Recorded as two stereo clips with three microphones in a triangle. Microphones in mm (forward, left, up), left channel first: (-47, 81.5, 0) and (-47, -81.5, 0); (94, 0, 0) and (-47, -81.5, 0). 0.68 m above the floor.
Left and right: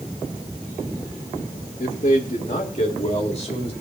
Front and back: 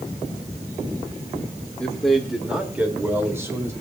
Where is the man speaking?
110° left, 1.9 m; by 3.7 s 140° left, 3.5 m.